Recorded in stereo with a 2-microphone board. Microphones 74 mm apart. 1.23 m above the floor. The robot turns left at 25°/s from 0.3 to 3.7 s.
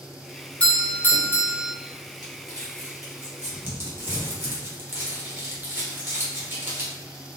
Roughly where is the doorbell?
Centre.